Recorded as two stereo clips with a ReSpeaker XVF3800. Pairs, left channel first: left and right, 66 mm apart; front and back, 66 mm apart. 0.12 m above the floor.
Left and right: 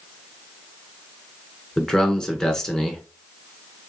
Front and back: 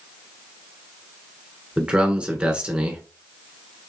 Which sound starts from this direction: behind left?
A man speaking, at 1.8 s.